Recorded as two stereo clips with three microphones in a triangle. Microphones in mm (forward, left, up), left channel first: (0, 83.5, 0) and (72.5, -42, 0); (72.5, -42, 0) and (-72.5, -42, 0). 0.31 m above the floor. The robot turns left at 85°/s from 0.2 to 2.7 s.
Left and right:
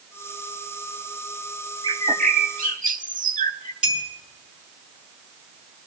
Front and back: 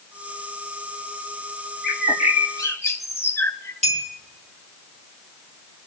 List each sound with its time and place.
1.8 s a bird: straight ahead, 0.6 m; by 3.7 s 75° right, 0.6 m
3.8 s a clink: 145° right, 3.5 m